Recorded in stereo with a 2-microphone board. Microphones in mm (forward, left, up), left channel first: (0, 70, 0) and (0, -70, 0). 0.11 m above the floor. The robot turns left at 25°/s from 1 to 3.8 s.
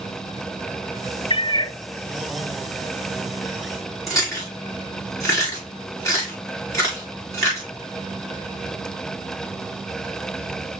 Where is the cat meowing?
40° left (ahead or behind), 0.7 m; by 1.8 s 30° left (ahead or behind), 0.7 m.